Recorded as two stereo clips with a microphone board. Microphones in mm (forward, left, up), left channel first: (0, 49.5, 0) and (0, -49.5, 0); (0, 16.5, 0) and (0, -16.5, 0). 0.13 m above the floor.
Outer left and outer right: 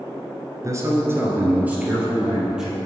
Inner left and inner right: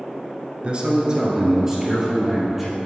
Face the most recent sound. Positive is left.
turn(degrees=-5)  # may be behind; listen again after turning